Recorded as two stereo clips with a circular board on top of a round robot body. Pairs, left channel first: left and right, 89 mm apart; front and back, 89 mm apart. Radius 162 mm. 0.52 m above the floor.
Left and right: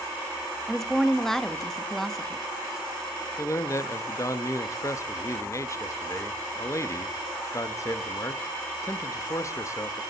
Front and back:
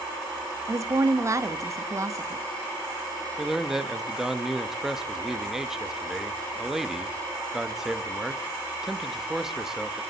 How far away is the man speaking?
About 1.1 m.